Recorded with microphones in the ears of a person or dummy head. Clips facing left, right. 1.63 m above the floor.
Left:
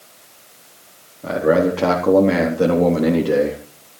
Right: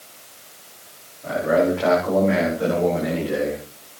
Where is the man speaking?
70° left (ahead or behind), 4.5 m; by 3.6 s 85° left, 3 m.